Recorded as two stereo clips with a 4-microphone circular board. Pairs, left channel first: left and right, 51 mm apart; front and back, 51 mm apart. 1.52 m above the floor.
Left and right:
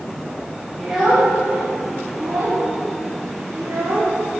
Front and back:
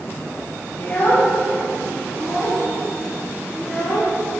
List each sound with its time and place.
0.8 s a child speaking: 5° right, 0.9 m; by 4.2 s 100° right, 1.8 m